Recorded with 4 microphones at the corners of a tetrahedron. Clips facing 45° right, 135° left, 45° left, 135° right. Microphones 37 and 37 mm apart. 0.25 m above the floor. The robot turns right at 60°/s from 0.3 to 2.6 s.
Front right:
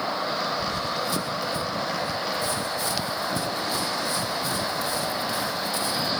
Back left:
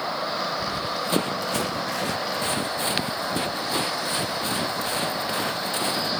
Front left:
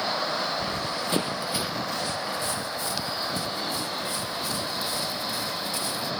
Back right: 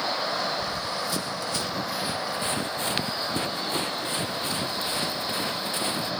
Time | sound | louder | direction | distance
0.6 | running footsteps | even, even | 65° left | ?